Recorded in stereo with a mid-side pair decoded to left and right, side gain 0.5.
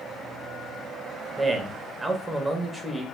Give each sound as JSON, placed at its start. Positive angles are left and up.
{"t": 1.4, "sound": "a man speaking", "azimuth_deg": -10, "distance_m": 0.8}